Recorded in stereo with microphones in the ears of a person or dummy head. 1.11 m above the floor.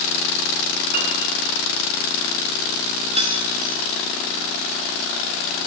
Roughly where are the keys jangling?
Right.